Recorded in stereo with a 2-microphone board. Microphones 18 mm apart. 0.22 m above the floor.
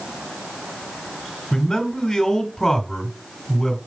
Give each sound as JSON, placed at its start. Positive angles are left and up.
{"t": 1.5, "sound": "a man speaking", "side_deg": 20, "distance_m": 2.0}